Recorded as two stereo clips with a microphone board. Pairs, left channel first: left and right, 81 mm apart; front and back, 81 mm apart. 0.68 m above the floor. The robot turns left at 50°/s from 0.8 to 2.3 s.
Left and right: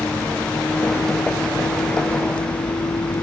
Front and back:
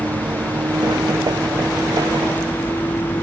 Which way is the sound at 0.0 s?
150° left.